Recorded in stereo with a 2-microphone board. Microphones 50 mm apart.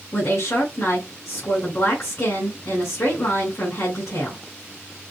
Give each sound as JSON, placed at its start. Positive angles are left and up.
{"t": 0.1, "sound": "a woman speaking", "side_deg": 65, "distance_m": 2.5}